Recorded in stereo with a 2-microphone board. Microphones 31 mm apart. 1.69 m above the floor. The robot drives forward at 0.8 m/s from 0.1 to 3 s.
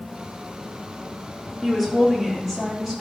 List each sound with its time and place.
1.6 s a woman speaking: 10° right (ahead or behind), 3.5 m